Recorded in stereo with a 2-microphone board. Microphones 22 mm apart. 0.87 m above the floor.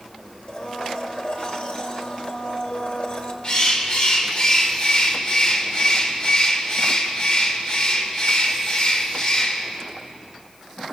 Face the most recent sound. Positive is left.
turn(degrees=50)  # may be behind; listen again after turning